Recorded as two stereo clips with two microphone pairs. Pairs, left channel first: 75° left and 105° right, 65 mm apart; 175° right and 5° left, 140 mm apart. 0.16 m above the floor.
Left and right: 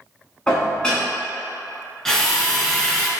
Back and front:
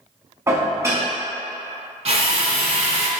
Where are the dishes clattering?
20° left, 0.9 m.